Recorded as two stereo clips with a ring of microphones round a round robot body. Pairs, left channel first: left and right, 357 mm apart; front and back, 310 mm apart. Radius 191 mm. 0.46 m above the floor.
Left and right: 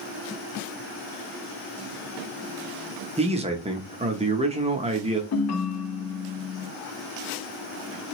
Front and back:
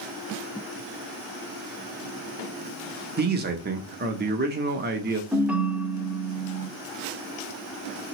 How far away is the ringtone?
About 0.9 m.